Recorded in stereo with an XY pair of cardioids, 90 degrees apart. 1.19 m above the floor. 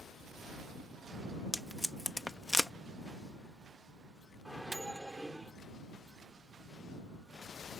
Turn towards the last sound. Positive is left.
turn(degrees=-10)